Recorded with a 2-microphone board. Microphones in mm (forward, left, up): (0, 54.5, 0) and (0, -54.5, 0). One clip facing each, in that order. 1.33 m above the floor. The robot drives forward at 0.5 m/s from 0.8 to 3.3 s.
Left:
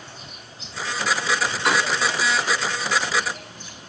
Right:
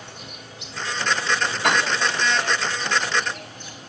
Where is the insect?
65° right (ahead or behind), 4 m; by 3.9 s 50° right (ahead or behind), 4.5 m.